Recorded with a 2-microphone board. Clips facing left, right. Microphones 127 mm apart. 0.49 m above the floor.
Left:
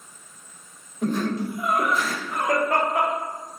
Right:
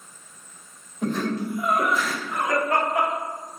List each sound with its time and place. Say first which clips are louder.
1.0 s laughter: left 1 dB; 5° left (ahead or behind), 1.2 m; by 3.1 s 45° left (ahead or behind), 1.5 m